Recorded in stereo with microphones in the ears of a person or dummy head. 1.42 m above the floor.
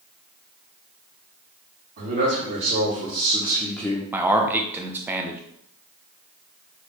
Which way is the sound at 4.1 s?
5° right (ahead or behind).